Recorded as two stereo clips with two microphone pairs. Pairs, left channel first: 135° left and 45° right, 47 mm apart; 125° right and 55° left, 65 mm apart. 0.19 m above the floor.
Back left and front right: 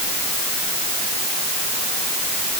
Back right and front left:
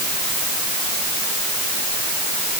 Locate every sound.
Only background noise.